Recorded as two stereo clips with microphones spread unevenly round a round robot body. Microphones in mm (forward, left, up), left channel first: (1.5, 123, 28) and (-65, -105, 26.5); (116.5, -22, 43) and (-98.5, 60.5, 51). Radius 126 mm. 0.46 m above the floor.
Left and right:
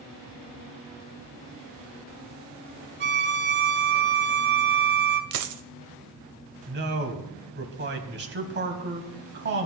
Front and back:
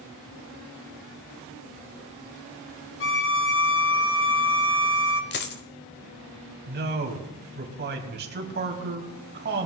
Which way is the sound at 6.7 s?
150° right.